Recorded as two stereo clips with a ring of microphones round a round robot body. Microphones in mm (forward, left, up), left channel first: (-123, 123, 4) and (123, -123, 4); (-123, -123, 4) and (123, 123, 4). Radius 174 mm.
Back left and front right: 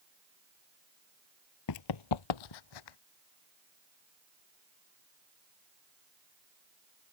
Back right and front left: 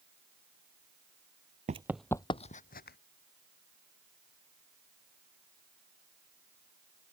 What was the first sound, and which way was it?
Running footsteps, 110° left.